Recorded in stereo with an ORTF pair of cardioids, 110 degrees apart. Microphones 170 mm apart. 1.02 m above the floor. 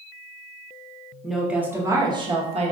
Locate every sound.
1.2 s a woman speaking: straight ahead, 1.2 m; by 2.7 s 45° right, 1.2 m